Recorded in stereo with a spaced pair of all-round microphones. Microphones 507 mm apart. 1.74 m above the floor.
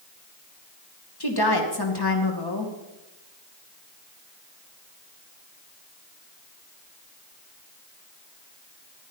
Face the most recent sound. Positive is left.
turn(degrees=50)  # may be behind; listen again after turning